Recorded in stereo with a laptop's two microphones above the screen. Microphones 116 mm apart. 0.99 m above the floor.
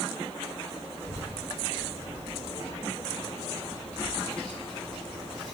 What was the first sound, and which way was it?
A child speaking, 25° left (ahead or behind).